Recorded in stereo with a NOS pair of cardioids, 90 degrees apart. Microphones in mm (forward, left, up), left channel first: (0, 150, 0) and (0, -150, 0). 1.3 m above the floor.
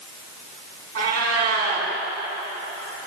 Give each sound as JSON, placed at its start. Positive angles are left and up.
{"t": 0.9, "sound": "a cat meowing", "azimuth_deg": -65, "distance_m": 3.5}